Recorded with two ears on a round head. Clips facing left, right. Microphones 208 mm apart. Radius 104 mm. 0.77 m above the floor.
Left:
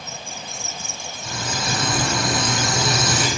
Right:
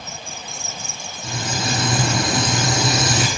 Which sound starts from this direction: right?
Frying, at 1.2 s.